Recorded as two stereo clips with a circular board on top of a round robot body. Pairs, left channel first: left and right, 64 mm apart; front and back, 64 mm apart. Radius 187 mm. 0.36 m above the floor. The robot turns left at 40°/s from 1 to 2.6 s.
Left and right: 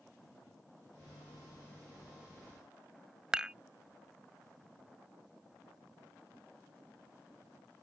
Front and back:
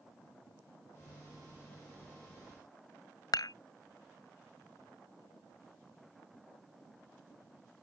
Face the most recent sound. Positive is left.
turn(degrees=-15)